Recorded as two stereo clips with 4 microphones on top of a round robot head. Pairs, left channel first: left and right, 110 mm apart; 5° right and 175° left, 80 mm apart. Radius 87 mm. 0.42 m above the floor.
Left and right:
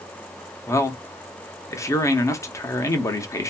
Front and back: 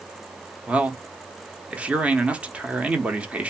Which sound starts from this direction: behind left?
A man speaking, at 0.7 s.